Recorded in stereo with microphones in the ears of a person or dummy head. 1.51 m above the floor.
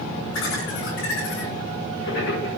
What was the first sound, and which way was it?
Laughter, 65° left (ahead or behind).